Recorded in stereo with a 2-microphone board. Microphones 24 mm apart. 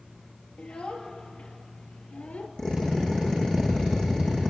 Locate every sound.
0.6 s a child speaking: 55° left (ahead or behind), 3.5 m; by 2.5 s 80° left, 3 m
2.6 s a drill: 25° left (ahead or behind), 9 m